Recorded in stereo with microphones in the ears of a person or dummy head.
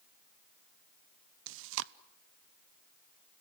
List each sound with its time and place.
1.5 s chewing: 70° right (ahead or behind), 0.7 m